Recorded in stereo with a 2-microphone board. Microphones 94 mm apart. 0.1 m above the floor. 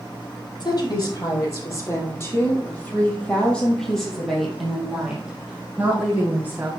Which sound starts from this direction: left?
A woman speaking, at 0.6 s.